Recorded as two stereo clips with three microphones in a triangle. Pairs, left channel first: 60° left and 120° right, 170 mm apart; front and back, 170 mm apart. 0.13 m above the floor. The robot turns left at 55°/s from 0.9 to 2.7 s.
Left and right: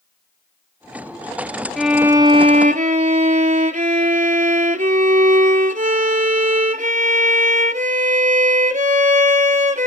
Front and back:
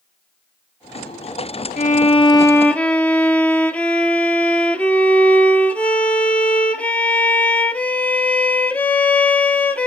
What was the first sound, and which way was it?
A violin, 30° right.